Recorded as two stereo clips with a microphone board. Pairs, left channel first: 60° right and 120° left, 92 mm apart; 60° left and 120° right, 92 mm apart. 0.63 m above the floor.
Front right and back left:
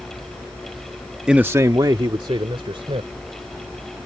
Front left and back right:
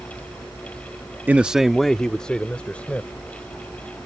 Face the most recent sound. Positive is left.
turn(degrees=135)